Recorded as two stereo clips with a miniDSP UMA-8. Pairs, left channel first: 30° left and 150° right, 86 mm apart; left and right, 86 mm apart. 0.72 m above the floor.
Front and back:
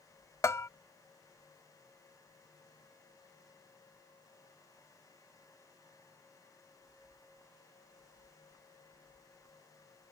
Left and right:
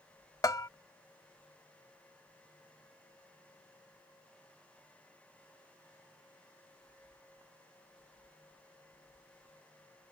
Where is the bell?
70° left.